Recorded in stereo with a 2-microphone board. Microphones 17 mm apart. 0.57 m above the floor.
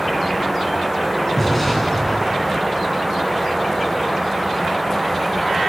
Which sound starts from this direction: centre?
An explosion, at 1.4 s.